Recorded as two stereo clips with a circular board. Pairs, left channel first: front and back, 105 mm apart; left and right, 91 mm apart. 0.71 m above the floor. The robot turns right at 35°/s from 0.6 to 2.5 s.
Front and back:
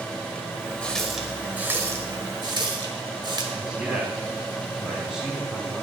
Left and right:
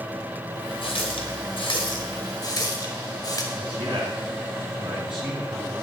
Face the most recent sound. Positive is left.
turn(degrees=-100)